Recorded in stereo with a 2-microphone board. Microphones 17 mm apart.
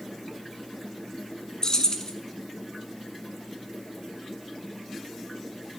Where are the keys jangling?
45° left (ahead or behind), 0.9 m.